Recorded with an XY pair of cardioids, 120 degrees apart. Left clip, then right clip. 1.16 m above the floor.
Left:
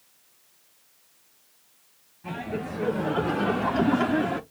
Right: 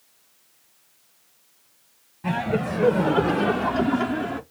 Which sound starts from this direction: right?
Laughter, at 2.2 s.